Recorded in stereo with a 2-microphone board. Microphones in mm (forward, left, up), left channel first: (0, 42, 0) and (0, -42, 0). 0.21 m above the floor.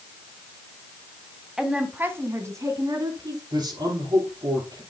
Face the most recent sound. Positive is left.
turn(degrees=-55)  # may be behind; listen again after turning